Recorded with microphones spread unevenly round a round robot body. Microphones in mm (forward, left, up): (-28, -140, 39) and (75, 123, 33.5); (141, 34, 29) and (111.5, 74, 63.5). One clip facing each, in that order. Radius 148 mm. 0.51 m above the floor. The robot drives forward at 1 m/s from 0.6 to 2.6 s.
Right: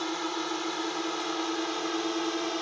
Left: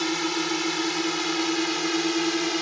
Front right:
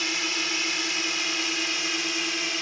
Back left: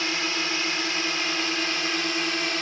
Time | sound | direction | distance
0.0 | a drone | 55° left | ?